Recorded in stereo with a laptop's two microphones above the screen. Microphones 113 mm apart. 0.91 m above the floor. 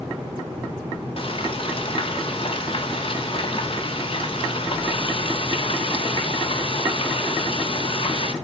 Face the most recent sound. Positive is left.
turn(degrees=50)  # may be behind; listen again after turning